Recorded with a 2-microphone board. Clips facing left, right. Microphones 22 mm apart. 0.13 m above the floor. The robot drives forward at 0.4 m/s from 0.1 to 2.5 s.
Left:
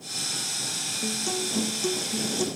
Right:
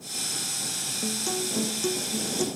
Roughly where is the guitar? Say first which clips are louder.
Even; centre.